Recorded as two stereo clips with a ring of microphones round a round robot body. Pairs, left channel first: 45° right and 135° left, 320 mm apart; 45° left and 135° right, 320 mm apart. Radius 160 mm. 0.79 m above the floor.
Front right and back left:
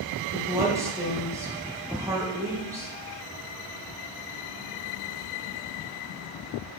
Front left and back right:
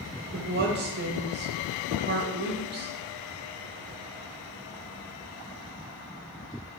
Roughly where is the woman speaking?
Behind right.